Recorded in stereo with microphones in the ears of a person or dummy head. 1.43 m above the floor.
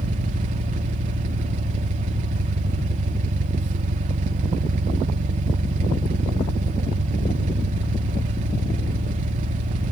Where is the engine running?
45° right (ahead or behind), 1.2 m.